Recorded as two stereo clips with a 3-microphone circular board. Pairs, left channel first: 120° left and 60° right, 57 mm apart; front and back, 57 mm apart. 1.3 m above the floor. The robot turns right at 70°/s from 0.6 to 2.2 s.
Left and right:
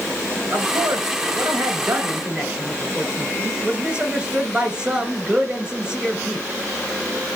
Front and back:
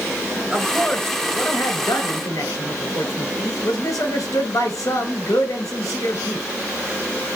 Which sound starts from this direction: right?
A man speaking, at 0.5 s.